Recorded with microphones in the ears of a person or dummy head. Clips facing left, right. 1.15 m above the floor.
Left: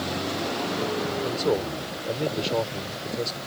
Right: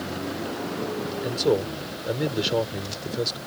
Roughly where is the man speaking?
Centre.